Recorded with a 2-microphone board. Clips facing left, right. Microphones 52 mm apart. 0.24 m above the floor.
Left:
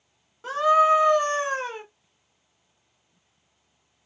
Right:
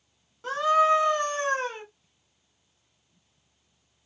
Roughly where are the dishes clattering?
I don't hear dishes clattering.